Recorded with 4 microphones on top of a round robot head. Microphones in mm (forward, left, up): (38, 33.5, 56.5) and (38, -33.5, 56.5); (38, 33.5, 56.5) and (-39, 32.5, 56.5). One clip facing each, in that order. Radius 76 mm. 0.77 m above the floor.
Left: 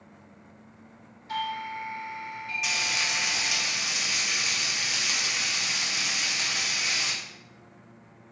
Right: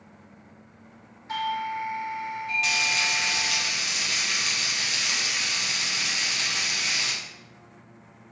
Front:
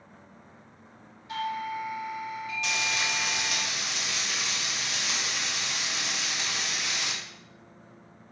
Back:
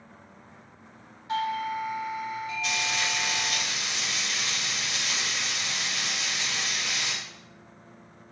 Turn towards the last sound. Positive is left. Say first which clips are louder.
# right 2 dB, front 1 dB
turn(degrees=10)